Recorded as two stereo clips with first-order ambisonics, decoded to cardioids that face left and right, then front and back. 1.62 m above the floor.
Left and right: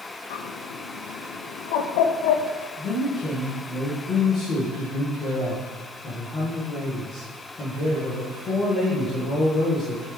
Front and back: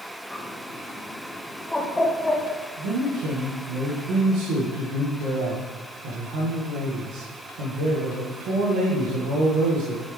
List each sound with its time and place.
0.3 s a bird: 85° left, 0.7 m
2.8 s a man speaking: 160° left, 1.5 m